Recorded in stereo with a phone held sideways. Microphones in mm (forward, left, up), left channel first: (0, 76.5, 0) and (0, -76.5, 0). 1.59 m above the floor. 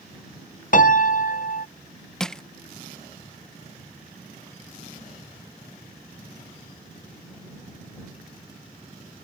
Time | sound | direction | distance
0.7 | a piano | 60° left (ahead or behind) | ?
2.2 | crushing | 5° left (ahead or behind) | ?